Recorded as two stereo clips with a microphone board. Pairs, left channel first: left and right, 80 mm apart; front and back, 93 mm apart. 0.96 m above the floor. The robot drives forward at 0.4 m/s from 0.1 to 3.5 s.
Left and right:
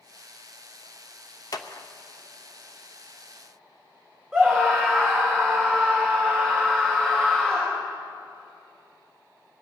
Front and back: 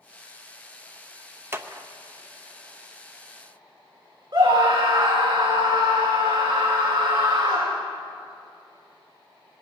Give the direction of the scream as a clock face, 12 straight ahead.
6 o'clock.